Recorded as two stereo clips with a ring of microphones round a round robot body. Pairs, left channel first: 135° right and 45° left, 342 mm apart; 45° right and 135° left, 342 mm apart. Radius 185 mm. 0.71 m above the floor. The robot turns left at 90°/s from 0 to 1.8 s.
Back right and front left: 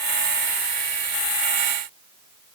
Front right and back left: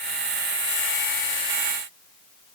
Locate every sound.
Only background noise.